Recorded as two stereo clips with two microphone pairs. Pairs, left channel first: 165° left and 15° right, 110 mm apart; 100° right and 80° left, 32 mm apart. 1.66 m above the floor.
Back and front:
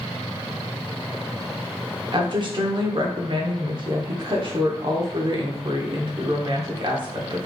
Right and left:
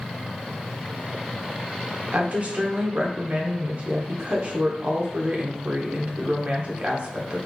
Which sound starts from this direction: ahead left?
A woman speaking, at 2.1 s.